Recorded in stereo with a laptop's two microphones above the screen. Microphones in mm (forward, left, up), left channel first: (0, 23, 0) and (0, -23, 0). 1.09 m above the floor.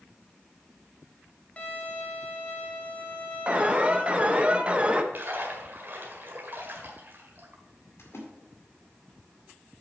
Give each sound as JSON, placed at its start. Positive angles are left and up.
{"t": 1.6, "sound": "a violin", "side_deg": 30, "distance_m": 1.5}
{"t": 3.5, "sound": "an alarm", "side_deg": -25, "distance_m": 0.7}
{"t": 5.1, "sound": "a splash", "side_deg": -50, "distance_m": 1.7}
{"t": 8.0, "sound": "a splash", "side_deg": 65, "distance_m": 2.0}